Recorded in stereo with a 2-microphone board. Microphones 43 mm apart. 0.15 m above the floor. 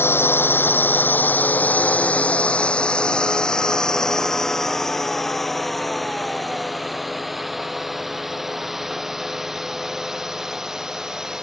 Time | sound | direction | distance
0.0 | a drone | 65° left (ahead or behind) | ?